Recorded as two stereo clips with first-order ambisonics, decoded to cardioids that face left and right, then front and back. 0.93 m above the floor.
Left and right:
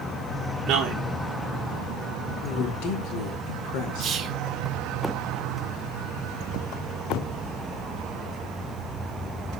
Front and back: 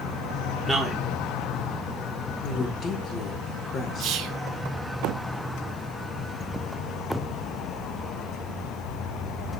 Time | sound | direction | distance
0.7 | a man speaking | 100° right | 0.7 m
2.4 | a woman speaking | 70° left | 1.7 m
4.0 | whispering | 145° right | 1.0 m